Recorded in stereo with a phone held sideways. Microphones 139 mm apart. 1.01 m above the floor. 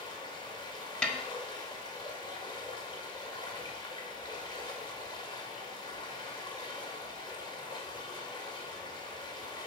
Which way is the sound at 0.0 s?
35° left (ahead or behind).